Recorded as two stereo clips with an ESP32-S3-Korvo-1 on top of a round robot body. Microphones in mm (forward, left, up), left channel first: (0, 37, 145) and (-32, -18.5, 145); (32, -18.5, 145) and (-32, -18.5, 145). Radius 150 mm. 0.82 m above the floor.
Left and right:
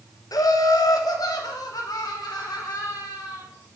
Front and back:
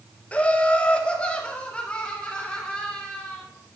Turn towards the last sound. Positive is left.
turn(degrees=75)